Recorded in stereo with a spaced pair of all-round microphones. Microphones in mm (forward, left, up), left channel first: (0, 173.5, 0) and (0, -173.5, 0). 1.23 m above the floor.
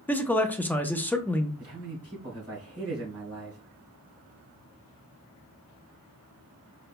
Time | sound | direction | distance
0.1 | a man speaking | 5° left (ahead or behind) | 0.7 m
1.6 | a man speaking | 40° right (ahead or behind) | 2.5 m